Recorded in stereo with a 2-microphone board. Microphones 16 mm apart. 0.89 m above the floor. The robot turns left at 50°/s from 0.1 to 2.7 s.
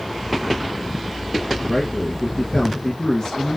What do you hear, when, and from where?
1.6 s a man speaking: 135° left, 0.7 m; by 3.6 s 80° left, 0.7 m